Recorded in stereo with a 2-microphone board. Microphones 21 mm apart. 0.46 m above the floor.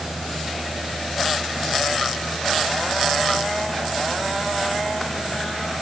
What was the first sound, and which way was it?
Only background noise.